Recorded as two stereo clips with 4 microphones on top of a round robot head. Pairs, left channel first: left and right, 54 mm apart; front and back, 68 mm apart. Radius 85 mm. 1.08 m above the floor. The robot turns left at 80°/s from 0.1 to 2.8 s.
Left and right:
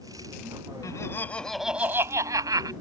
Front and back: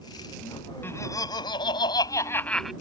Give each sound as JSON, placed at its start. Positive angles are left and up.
{"t": 0.8, "sound": "laughter", "azimuth_deg": 60}